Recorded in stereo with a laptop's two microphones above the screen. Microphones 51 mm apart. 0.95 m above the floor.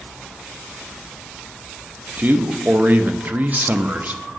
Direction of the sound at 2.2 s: 40° right (ahead or behind).